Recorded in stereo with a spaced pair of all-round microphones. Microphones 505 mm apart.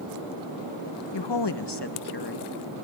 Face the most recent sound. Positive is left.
turn(degrees=45)  # may be behind; listen again after turning